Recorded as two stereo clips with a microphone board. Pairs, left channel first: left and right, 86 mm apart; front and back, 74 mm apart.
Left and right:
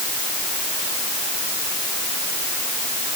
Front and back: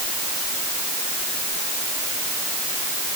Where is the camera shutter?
I don't hear a camera shutter.